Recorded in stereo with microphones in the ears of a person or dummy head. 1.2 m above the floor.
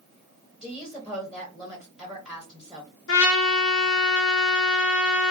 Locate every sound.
0.6 s a woman speaking: 5° right (ahead or behind), 1.0 m
3.1 s a trumpet: 60° left (ahead or behind), 0.6 m